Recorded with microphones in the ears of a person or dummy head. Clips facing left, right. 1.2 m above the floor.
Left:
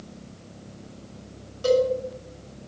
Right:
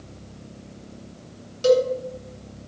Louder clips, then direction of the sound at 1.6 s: Right 3 dB; 30° right (ahead or behind).